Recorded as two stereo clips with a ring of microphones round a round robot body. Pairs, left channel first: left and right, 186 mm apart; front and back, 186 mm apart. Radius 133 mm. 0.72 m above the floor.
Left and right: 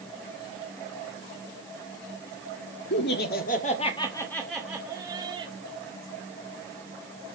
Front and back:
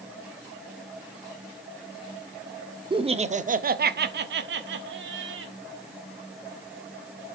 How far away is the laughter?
About 1.5 m.